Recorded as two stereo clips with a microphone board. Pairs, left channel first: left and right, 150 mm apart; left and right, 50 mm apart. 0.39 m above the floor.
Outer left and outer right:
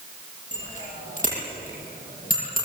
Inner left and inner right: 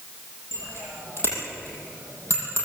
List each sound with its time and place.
0.5 s a bicycle bell: 50° left (ahead or behind), 9.5 m; by 2.6 s 60° left (ahead or behind), 9.5 m